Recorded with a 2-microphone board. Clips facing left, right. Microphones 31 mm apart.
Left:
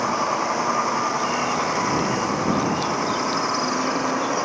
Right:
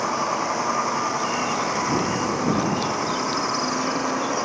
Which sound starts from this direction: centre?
A vehicle, at 0.0 s.